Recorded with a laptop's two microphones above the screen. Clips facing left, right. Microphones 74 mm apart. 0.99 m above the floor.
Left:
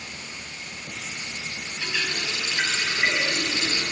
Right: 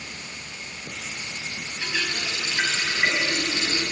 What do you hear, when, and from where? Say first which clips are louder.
1.8 s a running tap: even; 15° right (ahead or behind), 4.5 m